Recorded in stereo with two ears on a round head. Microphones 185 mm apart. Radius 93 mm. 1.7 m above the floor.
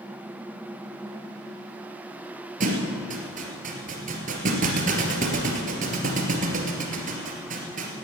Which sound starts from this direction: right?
A thud, at 2.6 s.